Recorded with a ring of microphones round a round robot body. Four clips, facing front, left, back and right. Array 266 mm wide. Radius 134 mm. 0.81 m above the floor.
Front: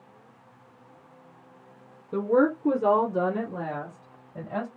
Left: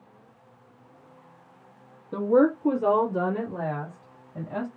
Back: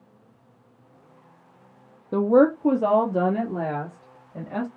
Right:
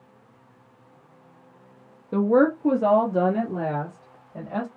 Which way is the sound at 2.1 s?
160° right.